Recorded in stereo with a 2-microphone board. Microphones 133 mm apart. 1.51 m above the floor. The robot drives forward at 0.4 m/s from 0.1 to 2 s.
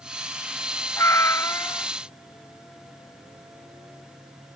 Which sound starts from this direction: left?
A cat meowing, at 1.0 s.